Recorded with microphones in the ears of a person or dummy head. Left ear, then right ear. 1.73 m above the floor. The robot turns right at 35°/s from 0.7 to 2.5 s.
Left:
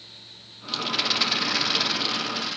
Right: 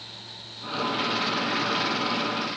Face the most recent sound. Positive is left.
turn(degrees=110)